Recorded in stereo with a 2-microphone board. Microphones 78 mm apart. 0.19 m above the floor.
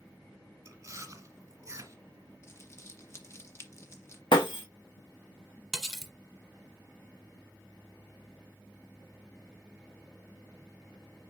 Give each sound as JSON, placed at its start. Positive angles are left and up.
{"t": 0.7, "sound": "chewing", "side_deg": -40, "distance_m": 1.3}
{"t": 2.4, "sound": "crumpling", "side_deg": 35, "distance_m": 1.3}
{"t": 4.3, "sound": "breaking glass", "side_deg": 85, "distance_m": 1.4}
{"t": 5.7, "sound": "cutlery clinking", "side_deg": 0, "distance_m": 1.2}